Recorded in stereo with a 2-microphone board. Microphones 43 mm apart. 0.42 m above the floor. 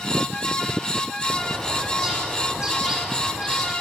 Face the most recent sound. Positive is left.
turn(degrees=-15)  # may be behind; listen again after turning